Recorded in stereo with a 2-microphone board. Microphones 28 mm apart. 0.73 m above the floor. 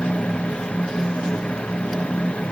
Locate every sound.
Only background noise.